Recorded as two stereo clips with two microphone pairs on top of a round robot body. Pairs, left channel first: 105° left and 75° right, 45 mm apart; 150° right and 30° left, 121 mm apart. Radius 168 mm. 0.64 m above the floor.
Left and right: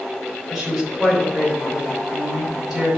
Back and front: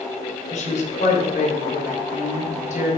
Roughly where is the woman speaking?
Behind.